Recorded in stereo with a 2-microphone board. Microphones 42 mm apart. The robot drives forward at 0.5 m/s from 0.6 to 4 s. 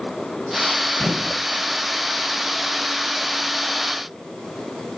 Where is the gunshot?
10° left (ahead or behind), 1.3 m.